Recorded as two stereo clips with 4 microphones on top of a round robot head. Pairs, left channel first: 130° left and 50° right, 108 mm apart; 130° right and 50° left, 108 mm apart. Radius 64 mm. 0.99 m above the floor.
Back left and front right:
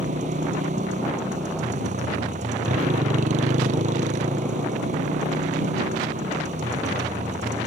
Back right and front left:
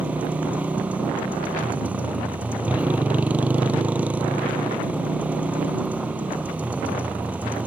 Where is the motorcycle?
30° right.